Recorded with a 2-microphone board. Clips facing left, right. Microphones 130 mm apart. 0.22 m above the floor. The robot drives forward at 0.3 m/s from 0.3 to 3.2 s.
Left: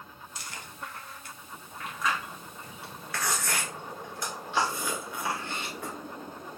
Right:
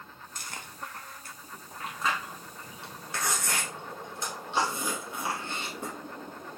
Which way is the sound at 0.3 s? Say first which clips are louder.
Right 1 dB; 50° right (ahead or behind).